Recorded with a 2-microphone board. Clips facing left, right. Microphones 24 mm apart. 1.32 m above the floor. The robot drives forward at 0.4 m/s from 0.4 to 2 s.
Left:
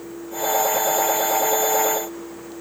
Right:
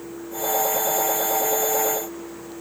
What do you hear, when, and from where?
Only background noise.